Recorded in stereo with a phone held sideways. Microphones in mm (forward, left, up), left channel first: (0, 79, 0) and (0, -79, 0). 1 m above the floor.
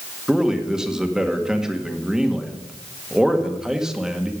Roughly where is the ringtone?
No ringtone in this recording.